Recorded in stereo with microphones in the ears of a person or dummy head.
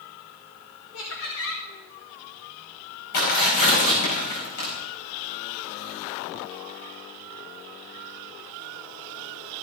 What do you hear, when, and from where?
0.9 s laughter: 75° left (ahead or behind), 2.0 m
3.1 s tearing paper: 65° left (ahead or behind), 5 m